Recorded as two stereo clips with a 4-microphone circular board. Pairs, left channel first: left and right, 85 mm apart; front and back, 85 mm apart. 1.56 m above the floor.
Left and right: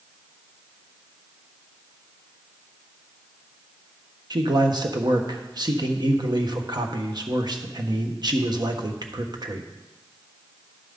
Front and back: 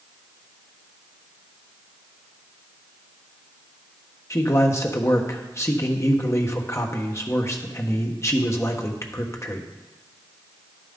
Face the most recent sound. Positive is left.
turn(degrees=-55)